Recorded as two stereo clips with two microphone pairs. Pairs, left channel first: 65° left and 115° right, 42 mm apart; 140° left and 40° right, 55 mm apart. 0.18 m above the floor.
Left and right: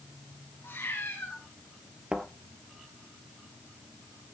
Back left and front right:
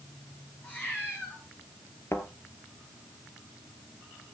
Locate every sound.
0.6 s a cat meowing: 80° left, 5 m
2.1 s a thud: 175° left, 1.7 m